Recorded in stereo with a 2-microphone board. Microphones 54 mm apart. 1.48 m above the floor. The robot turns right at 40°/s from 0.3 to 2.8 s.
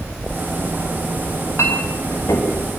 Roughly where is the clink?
Left.